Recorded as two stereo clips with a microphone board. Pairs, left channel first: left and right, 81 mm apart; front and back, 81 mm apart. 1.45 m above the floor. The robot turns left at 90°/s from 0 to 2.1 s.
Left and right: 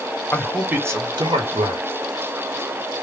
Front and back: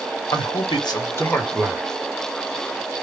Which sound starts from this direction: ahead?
A man speaking, at 0.3 s.